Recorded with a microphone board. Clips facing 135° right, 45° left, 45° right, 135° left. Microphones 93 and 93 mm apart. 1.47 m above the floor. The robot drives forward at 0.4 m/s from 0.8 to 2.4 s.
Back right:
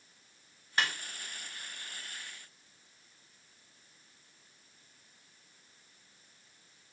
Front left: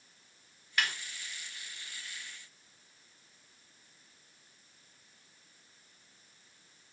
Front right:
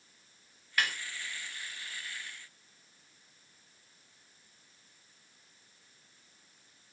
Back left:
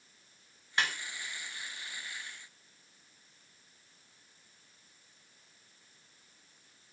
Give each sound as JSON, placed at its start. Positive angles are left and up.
{"t": 0.8, "sound": "a snare drum", "azimuth_deg": -175, "distance_m": 0.7}